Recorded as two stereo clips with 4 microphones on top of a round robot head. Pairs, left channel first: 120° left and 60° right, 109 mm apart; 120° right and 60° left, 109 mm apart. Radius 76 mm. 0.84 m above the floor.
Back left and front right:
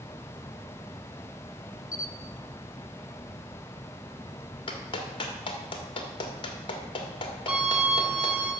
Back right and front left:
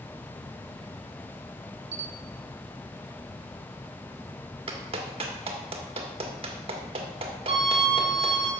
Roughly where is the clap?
Left.